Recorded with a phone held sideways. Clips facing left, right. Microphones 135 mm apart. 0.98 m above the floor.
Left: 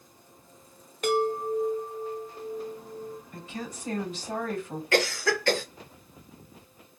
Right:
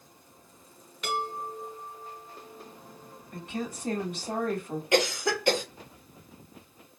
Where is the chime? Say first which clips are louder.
Left 8 dB; 45° left (ahead or behind), 1.0 m.